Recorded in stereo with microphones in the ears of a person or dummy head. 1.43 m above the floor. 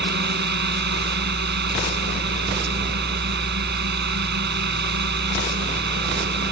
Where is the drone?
55° right (ahead or behind).